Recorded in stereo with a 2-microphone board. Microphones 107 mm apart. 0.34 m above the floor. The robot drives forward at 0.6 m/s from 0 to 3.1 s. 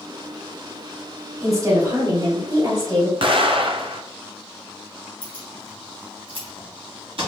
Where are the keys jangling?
60° right (ahead or behind), 2 m.